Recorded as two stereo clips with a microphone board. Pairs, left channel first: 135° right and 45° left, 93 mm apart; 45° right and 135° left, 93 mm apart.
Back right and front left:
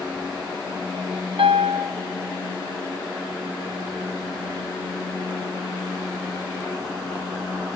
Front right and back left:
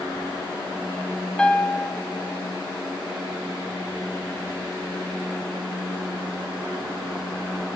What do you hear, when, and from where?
1.4 s a piano: 35° left, 0.8 m